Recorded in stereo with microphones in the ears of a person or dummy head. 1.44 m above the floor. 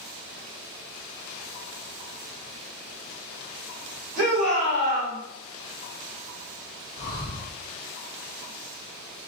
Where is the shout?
65° right (ahead or behind), 1.9 m; by 5.2 s 55° right (ahead or behind), 2.5 m.